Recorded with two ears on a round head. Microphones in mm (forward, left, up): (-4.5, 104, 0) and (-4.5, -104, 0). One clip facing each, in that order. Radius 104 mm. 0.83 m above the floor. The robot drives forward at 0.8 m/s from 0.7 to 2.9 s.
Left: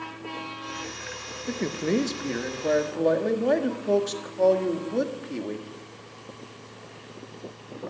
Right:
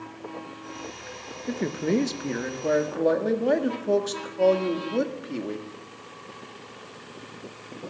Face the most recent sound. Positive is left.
turn(degrees=0)  # may be behind; listen again after turning